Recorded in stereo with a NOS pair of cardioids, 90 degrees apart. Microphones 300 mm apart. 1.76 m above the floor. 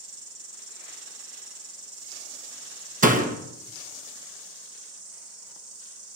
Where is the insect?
55° right, 3.5 m.